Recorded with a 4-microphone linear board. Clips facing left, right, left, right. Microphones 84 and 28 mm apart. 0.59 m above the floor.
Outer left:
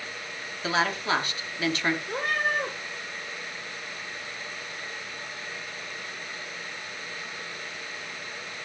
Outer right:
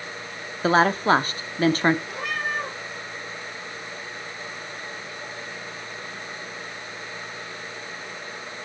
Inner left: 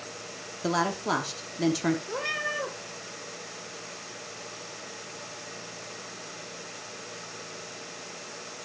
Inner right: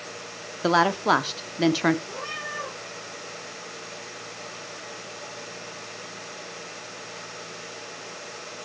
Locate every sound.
0.6 s a woman speaking: 40° right (ahead or behind), 0.8 m
2.1 s a cat meowing: 40° left (ahead or behind), 5.5 m